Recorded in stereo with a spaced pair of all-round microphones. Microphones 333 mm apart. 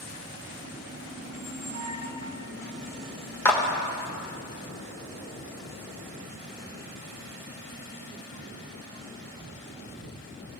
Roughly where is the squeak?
Left.